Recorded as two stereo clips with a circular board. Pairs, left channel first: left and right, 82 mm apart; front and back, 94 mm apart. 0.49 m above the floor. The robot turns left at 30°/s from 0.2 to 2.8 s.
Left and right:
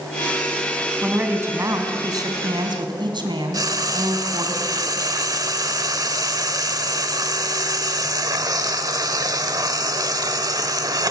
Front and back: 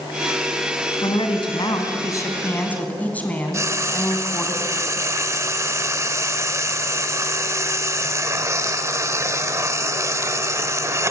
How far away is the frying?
About 1.1 m.